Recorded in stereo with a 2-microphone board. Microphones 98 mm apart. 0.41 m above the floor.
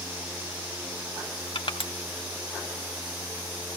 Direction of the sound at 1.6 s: 60° left (ahead or behind).